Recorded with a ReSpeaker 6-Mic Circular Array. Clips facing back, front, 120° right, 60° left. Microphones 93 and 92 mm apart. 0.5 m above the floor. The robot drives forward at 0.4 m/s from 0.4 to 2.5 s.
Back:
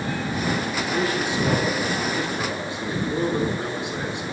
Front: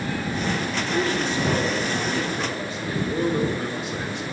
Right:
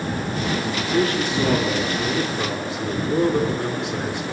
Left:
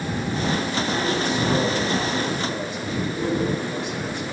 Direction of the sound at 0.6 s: 95° right.